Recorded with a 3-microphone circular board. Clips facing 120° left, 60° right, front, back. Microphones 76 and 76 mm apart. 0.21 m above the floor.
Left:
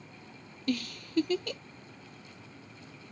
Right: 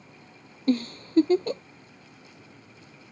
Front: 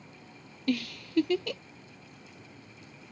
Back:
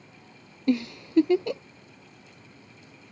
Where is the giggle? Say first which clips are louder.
Right 8 dB, back 5 dB; 115° right.